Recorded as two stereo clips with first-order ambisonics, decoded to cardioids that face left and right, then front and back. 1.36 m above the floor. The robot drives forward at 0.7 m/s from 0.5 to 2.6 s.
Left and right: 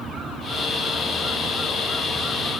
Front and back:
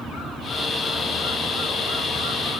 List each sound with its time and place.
Only background noise.